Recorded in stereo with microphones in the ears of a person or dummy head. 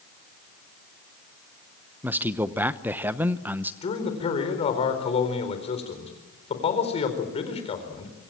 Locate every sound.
2.0 s a man speaking: 10° right (ahead or behind), 0.8 m
3.8 s a man speaking: 35° left (ahead or behind), 4 m